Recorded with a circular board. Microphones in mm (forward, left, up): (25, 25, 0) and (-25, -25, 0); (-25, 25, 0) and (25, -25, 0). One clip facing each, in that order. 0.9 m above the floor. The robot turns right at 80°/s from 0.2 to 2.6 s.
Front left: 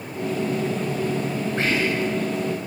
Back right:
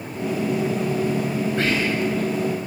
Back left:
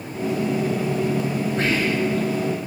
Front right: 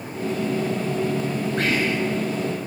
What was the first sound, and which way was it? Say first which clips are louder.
Whispering: front left 1 dB, back left 1 dB; 25° right.